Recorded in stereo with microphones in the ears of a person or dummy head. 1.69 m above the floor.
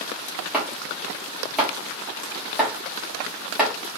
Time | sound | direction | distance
0.5 | chopping | centre (ahead or behind) | 1.4 m